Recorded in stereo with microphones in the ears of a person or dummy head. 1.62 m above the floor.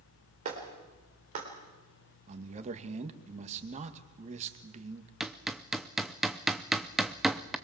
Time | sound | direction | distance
0.5 | a clap | 35° right (ahead or behind) | 4 m
2.3 | a man speaking | 45° right (ahead or behind) | 2 m
5.2 | hammering | 5° left (ahead or behind) | 0.7 m